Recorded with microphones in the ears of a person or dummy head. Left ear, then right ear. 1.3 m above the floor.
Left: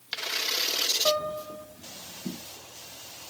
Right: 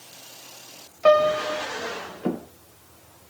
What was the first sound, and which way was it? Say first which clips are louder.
A piano: right 10 dB; 75° right (ahead or behind).